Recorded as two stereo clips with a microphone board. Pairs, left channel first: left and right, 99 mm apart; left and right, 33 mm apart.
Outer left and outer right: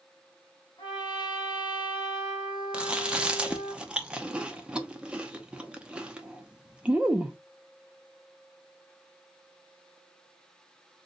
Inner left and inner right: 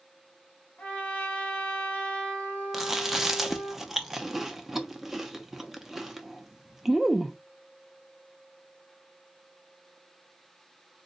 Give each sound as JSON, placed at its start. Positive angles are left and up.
{"t": 0.8, "sound": "a trumpet", "side_deg": 45, "distance_m": 1.4}
{"t": 2.7, "sound": "chewing", "side_deg": -10, "distance_m": 0.5}